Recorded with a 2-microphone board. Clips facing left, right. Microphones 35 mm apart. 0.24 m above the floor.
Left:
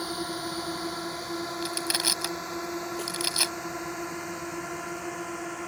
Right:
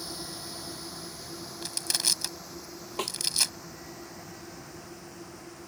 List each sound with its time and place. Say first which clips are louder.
0.0 s a drone: left 8 dB; 45° left (ahead or behind); by 5.7 s 70° left (ahead or behind)
1.6 s crushing: left 1 dB; 20° left (ahead or behind)
3.0 s a snare drum: even; 50° right (ahead or behind)